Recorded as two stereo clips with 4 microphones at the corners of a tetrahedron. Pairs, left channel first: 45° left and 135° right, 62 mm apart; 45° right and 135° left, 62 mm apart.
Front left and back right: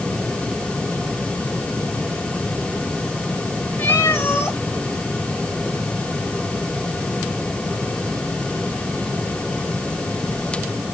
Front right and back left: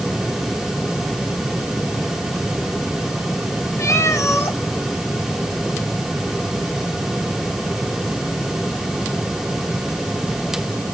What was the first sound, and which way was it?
A cat meowing, 5° right.